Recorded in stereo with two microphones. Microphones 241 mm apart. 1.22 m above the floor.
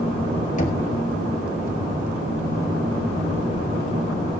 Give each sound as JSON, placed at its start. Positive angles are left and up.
{"t": 0.6, "sound": "knocking", "side_deg": 30, "distance_m": 3.0}